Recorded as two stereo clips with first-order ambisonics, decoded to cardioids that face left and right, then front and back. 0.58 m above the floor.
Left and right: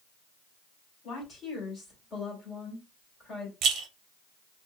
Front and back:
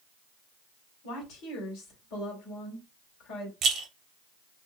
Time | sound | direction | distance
1.0 | a woman speaking | 25° left | 1.6 m
3.6 | a rattle | 130° right | 0.5 m